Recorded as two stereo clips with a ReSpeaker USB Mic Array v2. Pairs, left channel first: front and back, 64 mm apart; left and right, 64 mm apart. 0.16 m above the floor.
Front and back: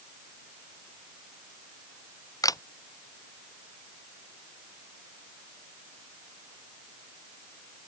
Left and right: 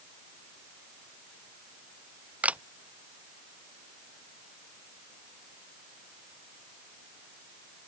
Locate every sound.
2.4 s a camera shutter: 20° right